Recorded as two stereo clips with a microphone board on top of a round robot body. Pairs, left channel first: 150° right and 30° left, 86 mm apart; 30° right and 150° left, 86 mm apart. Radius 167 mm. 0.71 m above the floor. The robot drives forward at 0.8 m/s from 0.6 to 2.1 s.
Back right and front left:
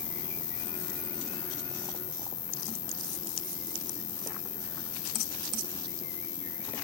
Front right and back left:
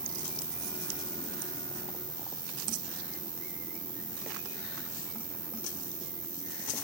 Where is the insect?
165° right; by 6.8 s 170° right.